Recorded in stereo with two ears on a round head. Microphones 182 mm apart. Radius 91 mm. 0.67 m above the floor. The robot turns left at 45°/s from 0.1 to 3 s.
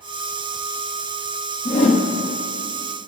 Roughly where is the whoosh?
Left.